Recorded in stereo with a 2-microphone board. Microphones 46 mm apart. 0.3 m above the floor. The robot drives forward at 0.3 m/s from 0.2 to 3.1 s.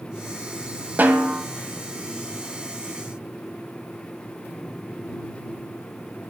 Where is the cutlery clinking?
No cutlery clinking in this recording.